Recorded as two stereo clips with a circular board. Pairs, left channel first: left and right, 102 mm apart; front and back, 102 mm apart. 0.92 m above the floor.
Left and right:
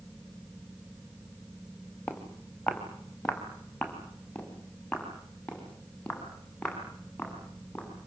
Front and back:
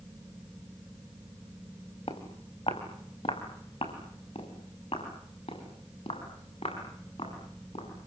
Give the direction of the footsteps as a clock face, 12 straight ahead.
12 o'clock.